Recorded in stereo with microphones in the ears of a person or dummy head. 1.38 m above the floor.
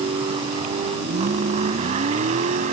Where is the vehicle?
35° right (ahead or behind); by 2.7 s 50° right (ahead or behind).